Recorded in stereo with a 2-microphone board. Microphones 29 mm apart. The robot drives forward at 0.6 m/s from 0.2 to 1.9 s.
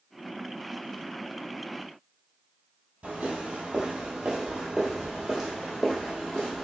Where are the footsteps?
40° right (ahead or behind), 2.0 m; by 6.6 s 5° left (ahead or behind), 2.5 m.